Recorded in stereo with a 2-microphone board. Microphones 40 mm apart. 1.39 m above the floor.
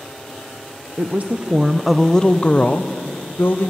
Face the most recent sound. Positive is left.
turn(degrees=60)  # may be behind; listen again after turning